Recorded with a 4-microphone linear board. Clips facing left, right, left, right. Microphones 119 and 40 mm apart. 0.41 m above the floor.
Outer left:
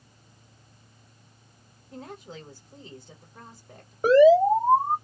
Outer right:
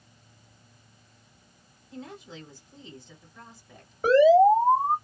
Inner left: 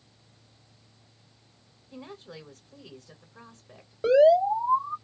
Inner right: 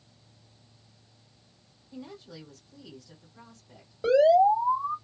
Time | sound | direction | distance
1.9 | a woman speaking | 45° left (ahead or behind) | 1.4 m
4.0 | an alarm | 10° left (ahead or behind) | 2 m